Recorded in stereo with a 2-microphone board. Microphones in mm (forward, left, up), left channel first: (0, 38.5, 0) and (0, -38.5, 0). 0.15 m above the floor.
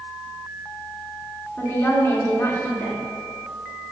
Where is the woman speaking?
35° left (ahead or behind), 1.7 m.